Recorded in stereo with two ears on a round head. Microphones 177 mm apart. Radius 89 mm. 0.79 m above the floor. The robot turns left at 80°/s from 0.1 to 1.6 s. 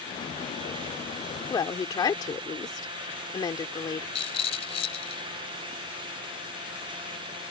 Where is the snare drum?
I don't hear a snare drum.